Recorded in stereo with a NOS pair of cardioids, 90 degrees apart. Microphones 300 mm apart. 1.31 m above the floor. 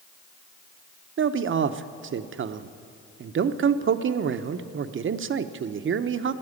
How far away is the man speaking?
About 0.7 m.